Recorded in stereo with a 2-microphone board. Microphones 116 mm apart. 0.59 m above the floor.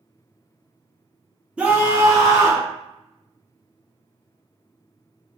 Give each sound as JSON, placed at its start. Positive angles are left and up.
{"t": 1.6, "sound": "a scream", "side_deg": -10, "distance_m": 0.6}